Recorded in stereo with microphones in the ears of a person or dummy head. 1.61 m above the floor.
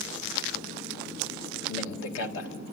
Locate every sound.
1.7 s a man speaking: 80° left, 2 m